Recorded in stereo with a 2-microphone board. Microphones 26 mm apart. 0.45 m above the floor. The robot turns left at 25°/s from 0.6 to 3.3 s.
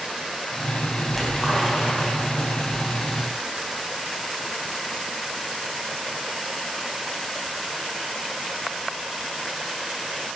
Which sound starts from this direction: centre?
A splash, at 1.1 s.